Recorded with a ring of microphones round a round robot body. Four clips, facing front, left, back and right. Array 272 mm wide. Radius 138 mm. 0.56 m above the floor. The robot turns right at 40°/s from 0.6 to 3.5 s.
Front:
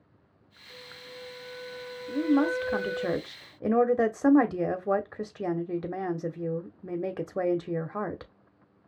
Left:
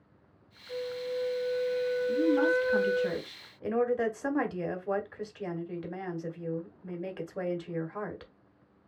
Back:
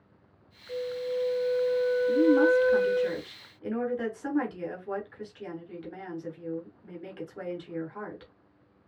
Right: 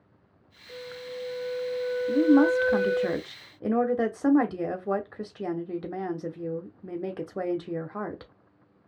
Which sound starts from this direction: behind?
A flute, at 0.7 s.